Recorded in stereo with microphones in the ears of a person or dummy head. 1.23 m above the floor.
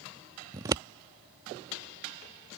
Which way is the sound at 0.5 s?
15° right (ahead or behind).